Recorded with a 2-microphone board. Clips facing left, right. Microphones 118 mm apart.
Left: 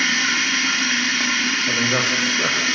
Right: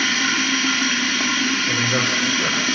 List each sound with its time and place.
0.0 s running water: 5° right (ahead or behind), 4 m
1.7 s a man speaking: 35° left (ahead or behind), 4.5 m